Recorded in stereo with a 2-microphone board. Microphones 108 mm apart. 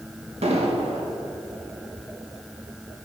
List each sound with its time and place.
0.4 s an explosion: 75° right (ahead or behind), 1.7 m